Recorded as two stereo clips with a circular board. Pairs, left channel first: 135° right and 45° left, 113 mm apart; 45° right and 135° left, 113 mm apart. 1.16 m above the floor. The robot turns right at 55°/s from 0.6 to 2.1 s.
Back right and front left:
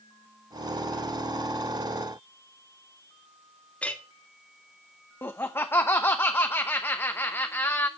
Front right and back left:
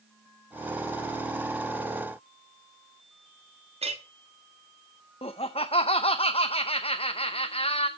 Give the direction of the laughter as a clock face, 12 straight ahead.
2 o'clock.